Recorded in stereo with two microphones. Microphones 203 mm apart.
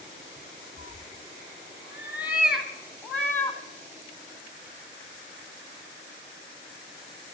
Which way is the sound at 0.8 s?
40° right (ahead or behind).